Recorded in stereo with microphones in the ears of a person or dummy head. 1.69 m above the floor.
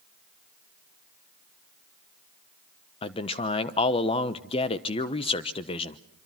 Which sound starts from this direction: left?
A man speaking, at 3.0 s.